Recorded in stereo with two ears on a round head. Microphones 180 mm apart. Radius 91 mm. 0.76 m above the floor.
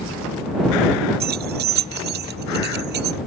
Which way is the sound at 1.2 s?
45° right (ahead or behind).